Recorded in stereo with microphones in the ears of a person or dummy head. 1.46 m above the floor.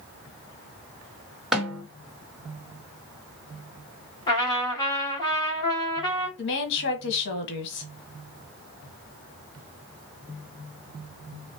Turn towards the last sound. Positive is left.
turn(degrees=70)  # may be behind; listen again after turning